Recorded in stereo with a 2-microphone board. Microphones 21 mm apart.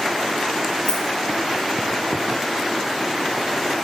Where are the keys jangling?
50° left (ahead or behind), 1.9 m.